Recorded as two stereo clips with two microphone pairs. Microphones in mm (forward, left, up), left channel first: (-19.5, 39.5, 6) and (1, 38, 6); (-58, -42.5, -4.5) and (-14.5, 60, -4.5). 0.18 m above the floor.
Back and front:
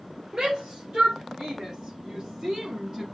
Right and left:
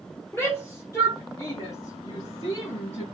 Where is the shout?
45° right, 3 m; by 3.0 s 70° right, 3.5 m.